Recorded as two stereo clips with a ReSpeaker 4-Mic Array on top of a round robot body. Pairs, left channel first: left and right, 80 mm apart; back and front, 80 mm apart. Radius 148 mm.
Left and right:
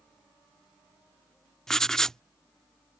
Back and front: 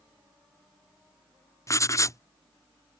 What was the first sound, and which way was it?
Writing, 170° left.